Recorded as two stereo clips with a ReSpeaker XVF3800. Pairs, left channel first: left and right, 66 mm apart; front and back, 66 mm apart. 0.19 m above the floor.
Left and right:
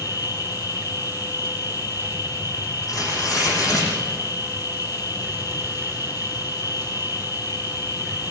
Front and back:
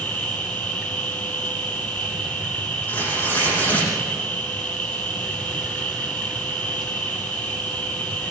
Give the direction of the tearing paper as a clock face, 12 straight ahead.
10 o'clock.